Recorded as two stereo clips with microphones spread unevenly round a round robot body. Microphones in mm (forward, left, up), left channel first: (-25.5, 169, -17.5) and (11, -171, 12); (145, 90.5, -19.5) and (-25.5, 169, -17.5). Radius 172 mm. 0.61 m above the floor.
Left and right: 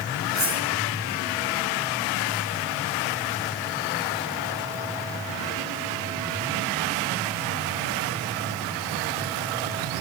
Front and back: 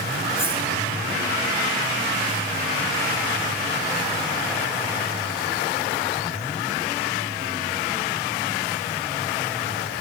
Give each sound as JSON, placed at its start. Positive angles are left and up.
{"t": 0.3, "sound": "cutlery clinking", "azimuth_deg": -125, "distance_m": 9.5}